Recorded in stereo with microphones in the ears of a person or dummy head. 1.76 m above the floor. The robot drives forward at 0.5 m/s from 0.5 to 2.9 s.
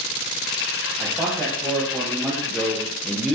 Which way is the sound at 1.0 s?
5° left (ahead or behind).